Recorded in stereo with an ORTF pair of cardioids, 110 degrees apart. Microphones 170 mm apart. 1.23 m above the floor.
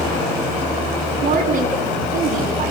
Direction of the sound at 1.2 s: 50° right.